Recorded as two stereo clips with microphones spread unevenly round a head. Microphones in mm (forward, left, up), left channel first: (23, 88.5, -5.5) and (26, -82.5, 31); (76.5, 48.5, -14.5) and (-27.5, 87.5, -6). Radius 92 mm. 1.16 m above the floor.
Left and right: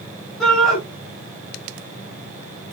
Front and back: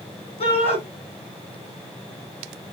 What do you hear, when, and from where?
0.4 s a shout: 5° left, 7 m